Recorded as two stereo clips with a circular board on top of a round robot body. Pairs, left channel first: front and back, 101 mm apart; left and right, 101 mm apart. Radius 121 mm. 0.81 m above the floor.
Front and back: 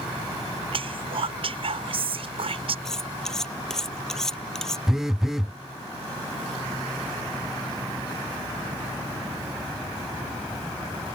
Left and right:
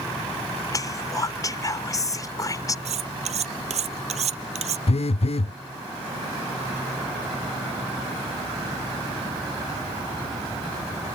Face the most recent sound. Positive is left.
turn(degrees=95)